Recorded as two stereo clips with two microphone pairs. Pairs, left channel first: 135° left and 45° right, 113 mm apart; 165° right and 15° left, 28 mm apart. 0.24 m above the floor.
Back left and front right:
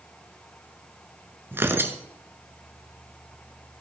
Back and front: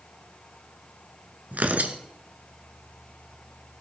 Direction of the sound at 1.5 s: 25° left.